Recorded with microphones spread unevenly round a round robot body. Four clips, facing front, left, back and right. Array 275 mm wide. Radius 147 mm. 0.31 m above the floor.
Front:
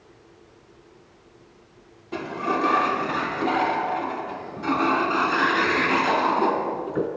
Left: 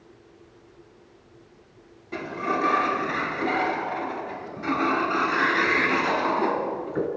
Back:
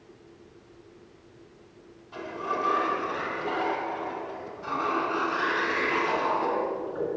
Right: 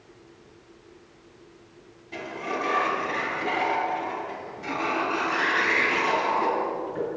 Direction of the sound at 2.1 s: 25° left.